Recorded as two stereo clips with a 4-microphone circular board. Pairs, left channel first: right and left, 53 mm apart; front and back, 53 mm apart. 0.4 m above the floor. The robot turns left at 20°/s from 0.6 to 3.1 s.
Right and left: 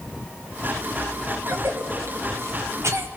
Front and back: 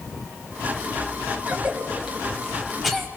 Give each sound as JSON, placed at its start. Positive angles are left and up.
{"t": 1.4, "sound": "a cough", "azimuth_deg": 120, "distance_m": 2.5}